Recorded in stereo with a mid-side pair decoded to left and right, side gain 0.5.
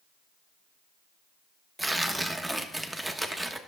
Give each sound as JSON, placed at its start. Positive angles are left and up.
{"t": 1.8, "sound": "tearing paper", "azimuth_deg": -5, "distance_m": 1.0}